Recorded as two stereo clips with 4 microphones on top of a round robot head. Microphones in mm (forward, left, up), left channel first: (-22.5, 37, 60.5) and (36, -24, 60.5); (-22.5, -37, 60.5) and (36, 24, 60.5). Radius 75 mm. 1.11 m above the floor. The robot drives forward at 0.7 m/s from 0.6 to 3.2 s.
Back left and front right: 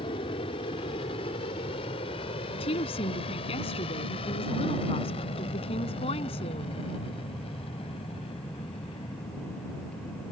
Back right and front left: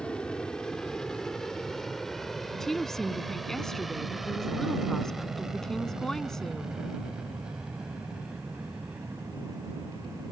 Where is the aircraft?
145° left; by 10.3 s 125° left.